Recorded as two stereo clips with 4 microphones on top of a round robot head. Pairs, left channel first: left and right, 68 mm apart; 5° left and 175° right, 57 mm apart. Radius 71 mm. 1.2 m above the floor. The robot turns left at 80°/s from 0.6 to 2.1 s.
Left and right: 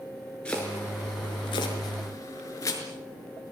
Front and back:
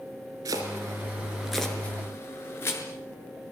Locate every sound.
0.5 s chopping: 170° left, 5 m; by 2.8 s 50° left, 5 m